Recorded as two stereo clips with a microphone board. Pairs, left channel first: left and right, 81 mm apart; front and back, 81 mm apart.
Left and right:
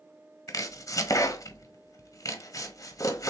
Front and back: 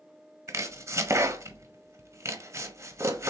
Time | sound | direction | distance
0.5 | chopping | 130° left | 0.9 m